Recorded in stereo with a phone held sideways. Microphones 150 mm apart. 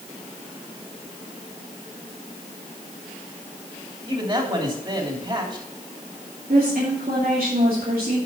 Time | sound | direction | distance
4.1 | a man speaking | 35° right (ahead or behind) | 3 m
6.5 | a woman speaking | 80° right | 3 m